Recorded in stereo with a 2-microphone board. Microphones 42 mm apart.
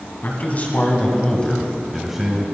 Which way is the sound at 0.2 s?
45° left (ahead or behind).